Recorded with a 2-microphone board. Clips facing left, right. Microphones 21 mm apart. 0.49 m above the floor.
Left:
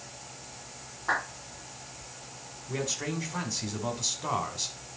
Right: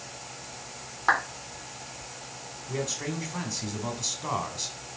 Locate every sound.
1.1 s a clap: 50° right (ahead or behind), 3.5 m
2.7 s a man speaking: 5° left (ahead or behind), 2.0 m